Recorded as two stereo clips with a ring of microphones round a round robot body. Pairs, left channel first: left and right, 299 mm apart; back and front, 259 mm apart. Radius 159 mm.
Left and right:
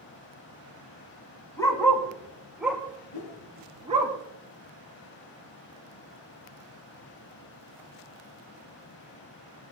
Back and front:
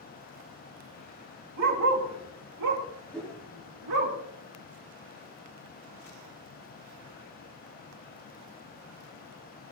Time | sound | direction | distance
1.6 | a dog barking | 10° left | 5 m
3.1 | a whoosh | 95° left | 6.5 m